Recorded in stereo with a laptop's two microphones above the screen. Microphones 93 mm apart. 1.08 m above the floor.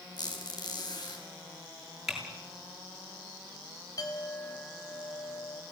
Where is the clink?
45° left (ahead or behind), 4.5 m.